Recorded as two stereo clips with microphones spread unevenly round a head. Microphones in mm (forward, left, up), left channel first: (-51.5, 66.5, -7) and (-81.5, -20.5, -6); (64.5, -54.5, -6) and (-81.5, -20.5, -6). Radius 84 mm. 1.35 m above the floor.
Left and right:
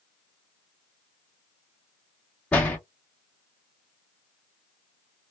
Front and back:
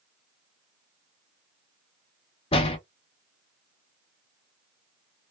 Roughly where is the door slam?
Ahead.